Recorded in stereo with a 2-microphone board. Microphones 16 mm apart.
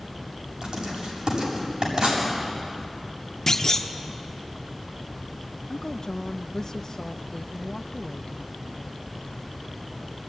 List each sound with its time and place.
0.6 s writing: 60° right (ahead or behind), 7.5 m
3.5 s a clunk: 25° left (ahead or behind), 1.2 m
5.7 s a woman speaking: 40° left (ahead or behind), 0.6 m